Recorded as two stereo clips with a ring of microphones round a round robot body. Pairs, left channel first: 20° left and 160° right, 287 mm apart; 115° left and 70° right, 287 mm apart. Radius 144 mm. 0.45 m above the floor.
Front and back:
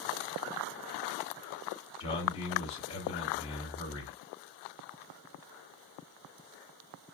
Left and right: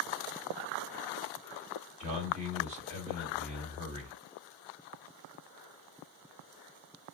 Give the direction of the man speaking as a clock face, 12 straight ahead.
1 o'clock.